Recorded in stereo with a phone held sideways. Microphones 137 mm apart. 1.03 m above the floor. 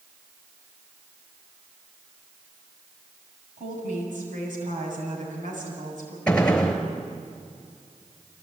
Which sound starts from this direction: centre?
A gunshot, at 6.3 s.